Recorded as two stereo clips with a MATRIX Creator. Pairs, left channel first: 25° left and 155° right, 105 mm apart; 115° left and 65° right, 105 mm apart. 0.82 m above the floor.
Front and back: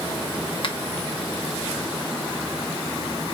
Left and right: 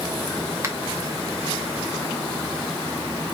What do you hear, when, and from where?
0.6 s a finger snap: 5° right, 0.9 m